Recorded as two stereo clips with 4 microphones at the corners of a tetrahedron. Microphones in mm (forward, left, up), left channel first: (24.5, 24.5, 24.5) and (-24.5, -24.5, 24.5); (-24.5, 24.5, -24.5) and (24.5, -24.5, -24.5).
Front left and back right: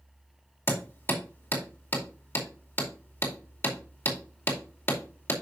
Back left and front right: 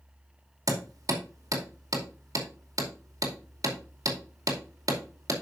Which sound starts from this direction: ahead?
Hammering, at 0.7 s.